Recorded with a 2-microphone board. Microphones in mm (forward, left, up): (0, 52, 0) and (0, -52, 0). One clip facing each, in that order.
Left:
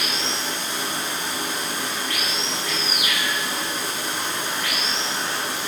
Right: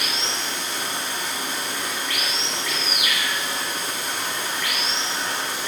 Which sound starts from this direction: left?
Running water, at 0.0 s.